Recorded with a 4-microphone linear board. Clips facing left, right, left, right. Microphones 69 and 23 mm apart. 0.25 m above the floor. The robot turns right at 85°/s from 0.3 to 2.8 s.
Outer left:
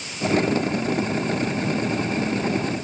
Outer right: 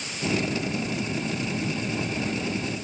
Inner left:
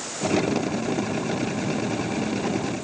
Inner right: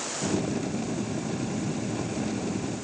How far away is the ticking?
No ticking in this recording.